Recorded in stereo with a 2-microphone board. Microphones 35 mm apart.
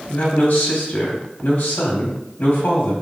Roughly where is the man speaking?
Left.